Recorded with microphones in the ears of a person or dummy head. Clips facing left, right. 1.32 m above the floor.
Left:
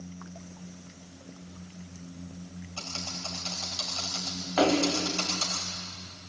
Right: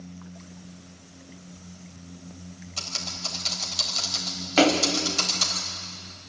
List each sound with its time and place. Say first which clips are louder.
2.8 s typing on a keyboard: even; 20° right (ahead or behind), 3.5 m
4.6 s a splash: right 3 dB; 25° right (ahead or behind), 1.5 m